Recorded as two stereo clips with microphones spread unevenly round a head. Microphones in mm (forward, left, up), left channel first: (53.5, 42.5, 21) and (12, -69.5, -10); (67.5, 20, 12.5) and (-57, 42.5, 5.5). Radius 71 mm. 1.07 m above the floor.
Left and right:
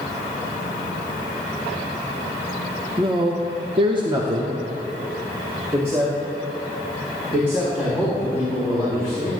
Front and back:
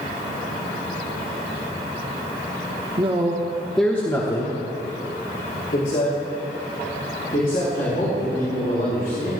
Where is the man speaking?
150° right, 1.2 m; by 9.3 s 30° right, 6 m.